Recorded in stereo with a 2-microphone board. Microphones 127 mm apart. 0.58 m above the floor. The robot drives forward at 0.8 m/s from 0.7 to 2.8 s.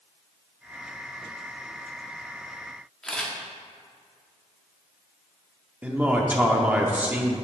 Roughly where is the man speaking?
Centre.